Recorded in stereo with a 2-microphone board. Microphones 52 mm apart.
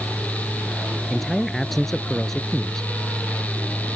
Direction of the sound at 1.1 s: 5° left (ahead or behind).